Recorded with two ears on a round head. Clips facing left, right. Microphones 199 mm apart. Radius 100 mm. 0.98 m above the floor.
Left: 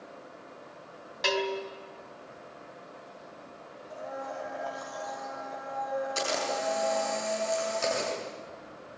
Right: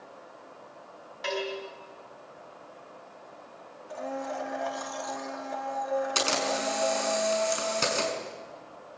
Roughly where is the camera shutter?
Right.